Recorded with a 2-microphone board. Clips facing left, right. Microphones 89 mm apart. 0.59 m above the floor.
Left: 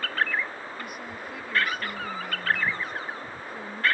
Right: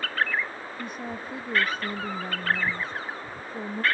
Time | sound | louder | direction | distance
0.8 | a woman speaking | right 3 dB | 30° right (ahead or behind) | ?